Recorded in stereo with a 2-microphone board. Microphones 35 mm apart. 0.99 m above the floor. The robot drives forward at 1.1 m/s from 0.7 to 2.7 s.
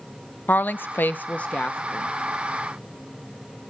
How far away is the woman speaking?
About 0.6 m.